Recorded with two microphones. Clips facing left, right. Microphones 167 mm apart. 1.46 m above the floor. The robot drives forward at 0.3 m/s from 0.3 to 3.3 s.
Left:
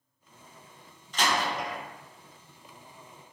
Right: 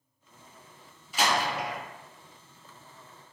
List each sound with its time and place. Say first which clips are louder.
1.1 s a door slam: right 1 dB; 10° right (ahead or behind), 0.5 m; by 1.8 s 5° right (ahead or behind), 0.6 m